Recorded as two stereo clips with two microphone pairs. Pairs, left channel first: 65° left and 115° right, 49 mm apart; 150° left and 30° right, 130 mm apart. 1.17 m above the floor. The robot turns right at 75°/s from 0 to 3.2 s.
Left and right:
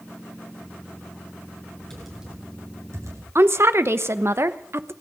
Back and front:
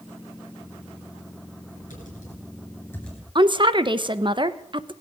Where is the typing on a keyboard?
145° left, 9.5 m; by 3.2 s 115° right, 9.5 m.